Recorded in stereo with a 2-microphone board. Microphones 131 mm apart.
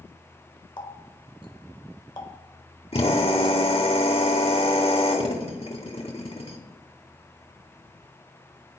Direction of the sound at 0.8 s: 35° left (ahead or behind).